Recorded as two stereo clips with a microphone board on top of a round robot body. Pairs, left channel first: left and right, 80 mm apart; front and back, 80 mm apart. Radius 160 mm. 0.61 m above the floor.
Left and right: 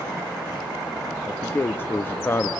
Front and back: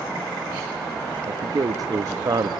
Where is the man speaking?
150° left, 0.9 m.